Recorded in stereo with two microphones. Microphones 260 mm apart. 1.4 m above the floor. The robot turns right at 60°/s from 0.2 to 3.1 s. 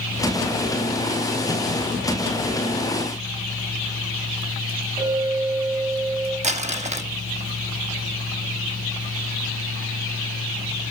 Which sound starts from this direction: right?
Crumpling, at 6.4 s.